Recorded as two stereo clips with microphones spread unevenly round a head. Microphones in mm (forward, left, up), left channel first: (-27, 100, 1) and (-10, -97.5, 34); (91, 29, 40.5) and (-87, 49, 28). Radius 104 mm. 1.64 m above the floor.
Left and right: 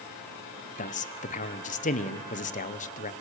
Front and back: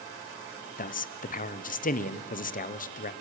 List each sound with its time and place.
0.8 s a man speaking: 40° left, 1.2 m